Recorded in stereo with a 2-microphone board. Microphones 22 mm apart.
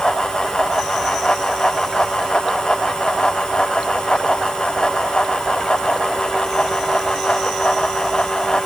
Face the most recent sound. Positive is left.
No sound to turn to.